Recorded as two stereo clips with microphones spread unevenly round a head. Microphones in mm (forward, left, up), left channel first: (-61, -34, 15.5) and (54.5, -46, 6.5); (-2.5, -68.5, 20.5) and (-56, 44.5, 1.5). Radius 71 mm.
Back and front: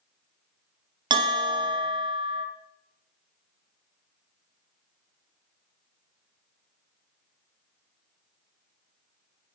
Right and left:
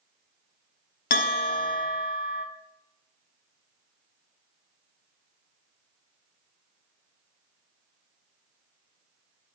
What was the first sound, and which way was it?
A bell, 60° right.